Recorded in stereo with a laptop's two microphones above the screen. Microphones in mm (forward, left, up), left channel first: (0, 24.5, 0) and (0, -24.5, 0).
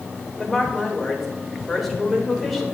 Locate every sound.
0.4 s a woman speaking: centre (ahead or behind), 3.5 m